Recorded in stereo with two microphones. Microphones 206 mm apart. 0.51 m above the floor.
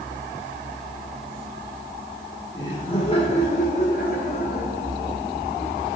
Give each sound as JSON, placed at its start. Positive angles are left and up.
{"t": 2.5, "sound": "laughter", "side_deg": 20, "distance_m": 1.7}